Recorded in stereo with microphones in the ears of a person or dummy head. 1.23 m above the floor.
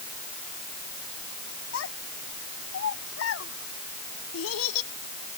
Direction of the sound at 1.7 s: 85° left.